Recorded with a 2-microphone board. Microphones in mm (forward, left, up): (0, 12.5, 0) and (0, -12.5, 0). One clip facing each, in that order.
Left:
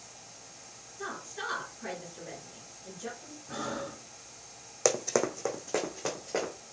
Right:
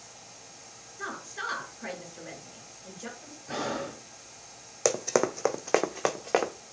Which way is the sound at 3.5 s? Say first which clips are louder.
Right 4 dB; 60° right (ahead or behind).